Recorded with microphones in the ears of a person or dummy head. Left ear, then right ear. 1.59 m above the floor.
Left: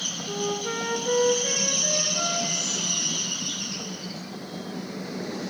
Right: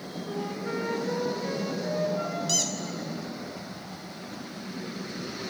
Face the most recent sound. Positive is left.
turn(degrees=-55)  # may be behind; listen again after turning